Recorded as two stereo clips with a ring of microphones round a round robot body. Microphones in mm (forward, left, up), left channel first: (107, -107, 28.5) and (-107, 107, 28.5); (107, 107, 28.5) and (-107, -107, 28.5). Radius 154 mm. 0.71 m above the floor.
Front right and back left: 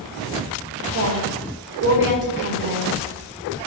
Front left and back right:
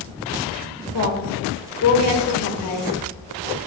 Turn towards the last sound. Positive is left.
turn(degrees=80)